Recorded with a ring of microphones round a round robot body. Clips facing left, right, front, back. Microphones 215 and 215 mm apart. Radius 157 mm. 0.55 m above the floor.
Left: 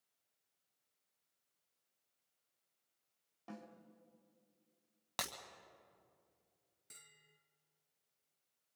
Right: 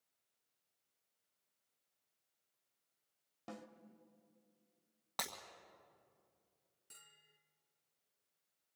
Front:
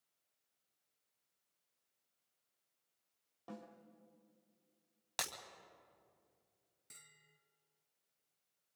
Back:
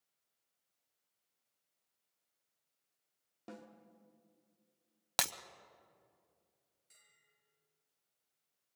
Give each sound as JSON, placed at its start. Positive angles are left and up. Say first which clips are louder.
{"t": 3.5, "sound": "a snare drum", "louder": "even, even", "azimuth_deg": -120, "distance_m": 1.6}
{"t": 5.2, "sound": "breaking glass", "louder": "even, back 6 dB", "azimuth_deg": 160, "distance_m": 1.1}
{"t": 6.9, "sound": "a bell", "louder": "left 2 dB, front 9 dB", "azimuth_deg": 20, "distance_m": 2.0}